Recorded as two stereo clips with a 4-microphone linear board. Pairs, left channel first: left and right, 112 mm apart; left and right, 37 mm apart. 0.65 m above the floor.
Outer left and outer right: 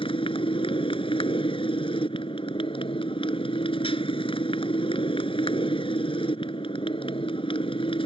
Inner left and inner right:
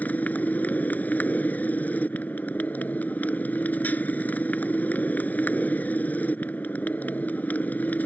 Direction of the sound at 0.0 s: 50° left (ahead or behind).